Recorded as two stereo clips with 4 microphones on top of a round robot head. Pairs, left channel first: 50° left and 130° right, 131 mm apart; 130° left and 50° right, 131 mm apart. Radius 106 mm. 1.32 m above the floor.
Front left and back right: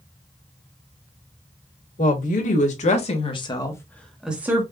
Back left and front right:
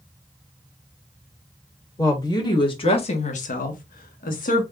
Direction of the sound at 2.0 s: 65° left.